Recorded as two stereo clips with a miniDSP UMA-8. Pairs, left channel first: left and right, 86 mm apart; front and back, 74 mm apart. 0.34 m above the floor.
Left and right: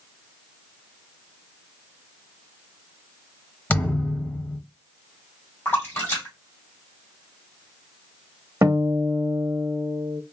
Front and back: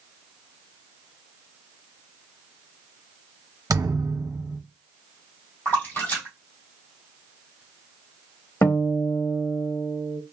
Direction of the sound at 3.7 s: 155° left.